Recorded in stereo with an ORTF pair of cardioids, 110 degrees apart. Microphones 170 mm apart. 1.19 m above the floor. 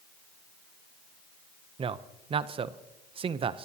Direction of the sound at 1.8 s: 35° right.